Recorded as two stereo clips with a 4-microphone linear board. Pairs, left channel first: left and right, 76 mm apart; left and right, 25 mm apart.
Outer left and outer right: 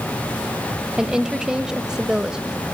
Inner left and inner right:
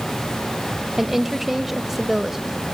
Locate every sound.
1.0 s a woman speaking: 10° right (ahead or behind), 1.3 m